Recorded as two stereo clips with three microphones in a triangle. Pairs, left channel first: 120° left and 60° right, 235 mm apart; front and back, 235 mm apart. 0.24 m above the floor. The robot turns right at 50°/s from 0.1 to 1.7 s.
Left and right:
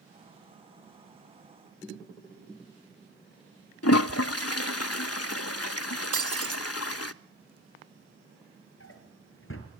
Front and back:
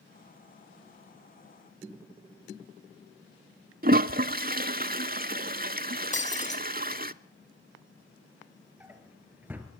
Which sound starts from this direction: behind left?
A toilet flushing, at 3.8 s.